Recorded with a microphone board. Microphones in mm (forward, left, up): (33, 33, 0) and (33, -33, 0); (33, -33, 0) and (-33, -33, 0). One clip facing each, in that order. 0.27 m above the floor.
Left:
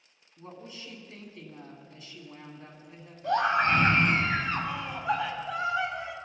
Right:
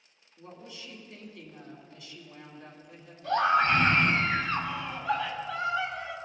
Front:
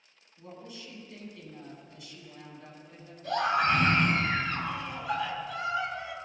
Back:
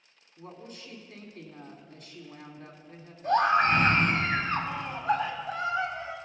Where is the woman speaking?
140° left, 2.5 m.